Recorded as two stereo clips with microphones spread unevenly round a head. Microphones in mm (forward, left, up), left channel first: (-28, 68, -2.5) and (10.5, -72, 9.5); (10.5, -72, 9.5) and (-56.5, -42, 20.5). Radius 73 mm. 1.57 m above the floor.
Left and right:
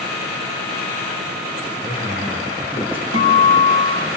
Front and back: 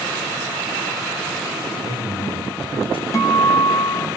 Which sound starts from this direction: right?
A guitar, at 3.1 s.